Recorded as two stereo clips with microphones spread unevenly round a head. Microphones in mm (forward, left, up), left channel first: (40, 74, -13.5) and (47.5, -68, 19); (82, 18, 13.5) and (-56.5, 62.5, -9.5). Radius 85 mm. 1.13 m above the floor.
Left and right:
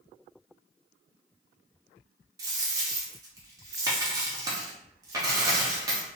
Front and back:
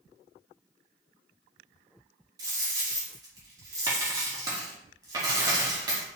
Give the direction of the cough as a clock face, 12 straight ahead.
No cough in this recording.